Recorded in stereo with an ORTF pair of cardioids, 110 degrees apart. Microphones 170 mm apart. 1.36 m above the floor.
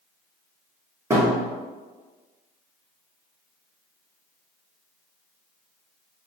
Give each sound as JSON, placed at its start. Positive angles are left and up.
{"t": 1.1, "sound": "a thud", "azimuth_deg": -20, "distance_m": 1.9}